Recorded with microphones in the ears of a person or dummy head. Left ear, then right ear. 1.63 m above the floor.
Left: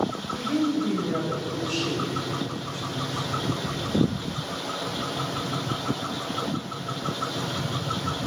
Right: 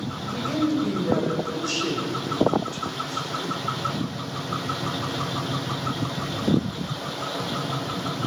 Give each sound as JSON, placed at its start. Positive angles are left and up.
{"t": 0.1, "sound": "a woman speaking", "side_deg": -80, "distance_m": 8.0}